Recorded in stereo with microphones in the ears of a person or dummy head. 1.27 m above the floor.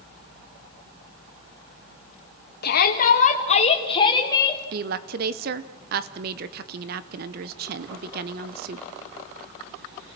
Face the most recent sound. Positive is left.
turn(degrees=-45)  # may be behind; listen again after turning